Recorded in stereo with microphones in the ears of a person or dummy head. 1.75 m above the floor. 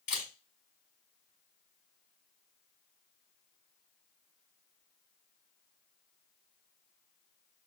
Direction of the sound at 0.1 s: 45° left (ahead or behind).